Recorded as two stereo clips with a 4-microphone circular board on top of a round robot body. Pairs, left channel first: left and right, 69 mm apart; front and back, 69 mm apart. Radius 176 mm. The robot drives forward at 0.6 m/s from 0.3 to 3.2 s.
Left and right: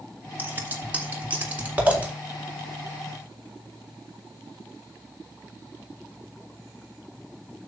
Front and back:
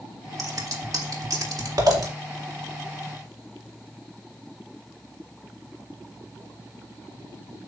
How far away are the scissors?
About 2.5 m.